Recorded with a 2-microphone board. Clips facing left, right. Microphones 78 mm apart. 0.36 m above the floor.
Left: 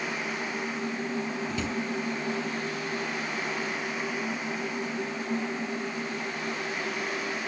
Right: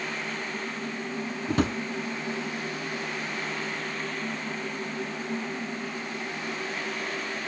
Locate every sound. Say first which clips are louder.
1.5 s a drawer: right 5 dB; 55° right (ahead or behind), 1.0 m